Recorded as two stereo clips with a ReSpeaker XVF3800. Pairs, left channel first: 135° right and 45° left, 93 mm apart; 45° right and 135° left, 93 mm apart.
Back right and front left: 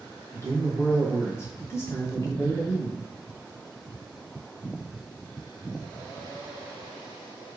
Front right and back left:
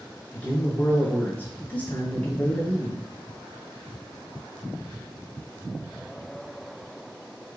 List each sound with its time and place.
0.3 s a man speaking: 105° right, 1.9 m